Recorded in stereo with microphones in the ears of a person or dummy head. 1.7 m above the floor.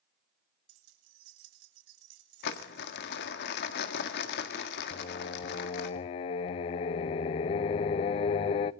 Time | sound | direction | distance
0.7 | keys jangling | 75° right (ahead or behind) | 3.5 m
2.4 | crumpling | 55° left (ahead or behind) | 1.7 m
4.9 | singing | 35° left (ahead or behind) | 0.6 m